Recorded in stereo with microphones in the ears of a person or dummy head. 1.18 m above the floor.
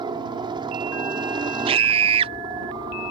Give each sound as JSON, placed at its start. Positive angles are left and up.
{"t": 0.0, "sound": "a helicopter", "side_deg": -20}
{"t": 1.7, "sound": "a scream", "side_deg": -25}